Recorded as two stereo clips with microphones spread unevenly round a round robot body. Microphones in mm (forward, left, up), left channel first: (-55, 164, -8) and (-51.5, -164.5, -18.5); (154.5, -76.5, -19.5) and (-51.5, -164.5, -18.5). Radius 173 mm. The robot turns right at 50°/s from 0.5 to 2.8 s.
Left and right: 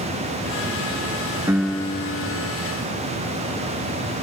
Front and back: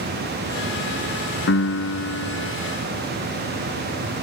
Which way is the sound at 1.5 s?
5° right.